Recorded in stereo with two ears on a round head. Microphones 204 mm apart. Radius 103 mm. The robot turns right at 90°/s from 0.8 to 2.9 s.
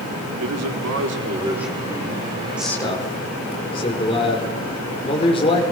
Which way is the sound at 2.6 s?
5° right (ahead or behind).